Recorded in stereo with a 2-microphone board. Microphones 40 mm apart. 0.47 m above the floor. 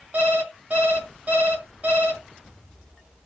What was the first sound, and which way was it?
An alarm clock, 45° right (ahead or behind).